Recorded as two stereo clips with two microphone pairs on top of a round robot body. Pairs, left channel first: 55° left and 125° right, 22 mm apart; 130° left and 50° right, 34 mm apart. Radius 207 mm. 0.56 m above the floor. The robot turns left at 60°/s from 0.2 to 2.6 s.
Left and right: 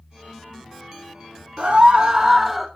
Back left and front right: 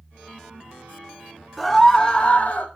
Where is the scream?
145° right, 3.5 m; by 2.7 s 150° left, 3.5 m.